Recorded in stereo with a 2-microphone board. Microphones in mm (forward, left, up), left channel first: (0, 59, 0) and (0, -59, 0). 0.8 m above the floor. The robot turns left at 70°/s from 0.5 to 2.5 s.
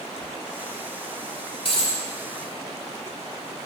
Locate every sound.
1.6 s a dropped coin: 50° left (ahead or behind), 1.5 m; by 2.0 s 75° left (ahead or behind), 1.5 m